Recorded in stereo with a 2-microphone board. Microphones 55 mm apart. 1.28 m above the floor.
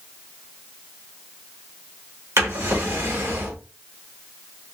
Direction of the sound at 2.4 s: 65° right (ahead or behind).